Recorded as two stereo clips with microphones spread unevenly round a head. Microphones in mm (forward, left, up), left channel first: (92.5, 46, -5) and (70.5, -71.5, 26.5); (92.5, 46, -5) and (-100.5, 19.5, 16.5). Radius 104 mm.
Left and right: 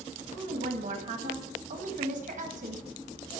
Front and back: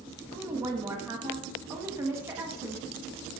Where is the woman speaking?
95° right, 1.9 m.